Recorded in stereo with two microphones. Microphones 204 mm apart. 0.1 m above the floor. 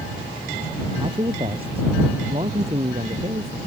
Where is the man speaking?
25° right (ahead or behind); by 3.6 s 30° right (ahead or behind).